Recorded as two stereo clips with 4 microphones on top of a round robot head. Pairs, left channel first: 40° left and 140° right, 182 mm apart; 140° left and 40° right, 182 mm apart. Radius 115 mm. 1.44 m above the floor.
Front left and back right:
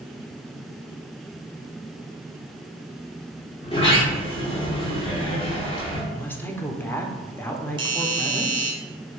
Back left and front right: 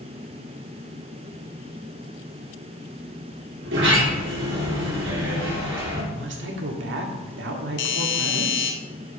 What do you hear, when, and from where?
3.6 s a sliding door: 20° right, 2 m
6.1 s a woman speaking: 40° right, 1.2 m
7.8 s a doorbell: 155° left, 1.1 m